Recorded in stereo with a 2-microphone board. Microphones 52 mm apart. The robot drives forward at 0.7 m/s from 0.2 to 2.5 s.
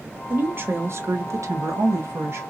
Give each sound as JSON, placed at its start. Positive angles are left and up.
{"t": 0.3, "sound": "a woman speaking", "side_deg": -40, "distance_m": 1.2}